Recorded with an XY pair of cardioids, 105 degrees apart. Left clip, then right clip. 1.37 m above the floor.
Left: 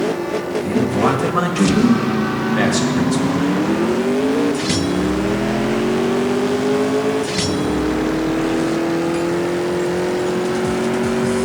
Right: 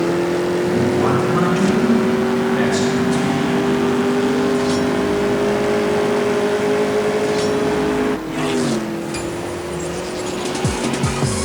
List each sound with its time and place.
0.6 s a man speaking: 40° left, 1.9 m